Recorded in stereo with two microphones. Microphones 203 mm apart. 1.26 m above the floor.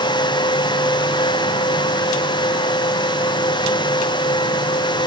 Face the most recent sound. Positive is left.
No sound to turn to.